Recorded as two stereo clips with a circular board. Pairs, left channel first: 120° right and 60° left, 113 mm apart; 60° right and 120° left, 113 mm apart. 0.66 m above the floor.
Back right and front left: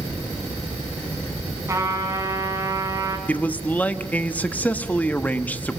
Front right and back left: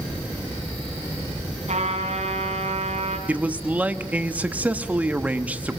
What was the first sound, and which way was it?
A trumpet, 125° left.